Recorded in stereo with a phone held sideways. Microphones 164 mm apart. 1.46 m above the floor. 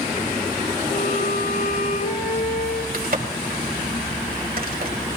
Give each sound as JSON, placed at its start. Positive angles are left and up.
{"t": 0.9, "sound": "a violin", "side_deg": 70, "distance_m": 8.5}
{"t": 2.9, "sound": "a crack", "side_deg": -60, "distance_m": 3.0}